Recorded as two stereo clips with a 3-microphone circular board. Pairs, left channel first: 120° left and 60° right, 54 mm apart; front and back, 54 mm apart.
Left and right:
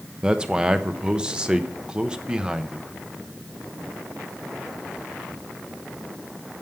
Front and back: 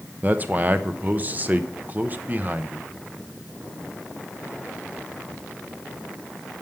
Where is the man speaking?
130° right, 0.6 m.